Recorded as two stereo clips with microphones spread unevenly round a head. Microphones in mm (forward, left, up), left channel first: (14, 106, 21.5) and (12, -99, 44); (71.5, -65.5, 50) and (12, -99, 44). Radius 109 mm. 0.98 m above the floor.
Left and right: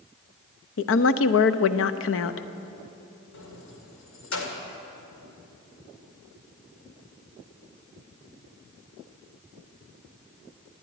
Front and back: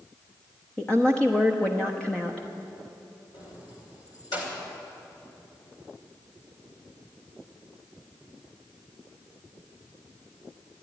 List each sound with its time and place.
0.8 s a woman speaking: 110° left, 0.7 m
3.3 s keys jangling: 65° left, 2.5 m